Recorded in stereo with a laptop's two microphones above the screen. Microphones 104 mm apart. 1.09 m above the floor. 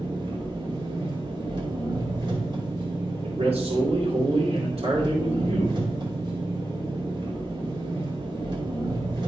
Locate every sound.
0.0 s an engine running: 50° right (ahead or behind), 2.5 m
3.2 s a man speaking: 85° right, 2.5 m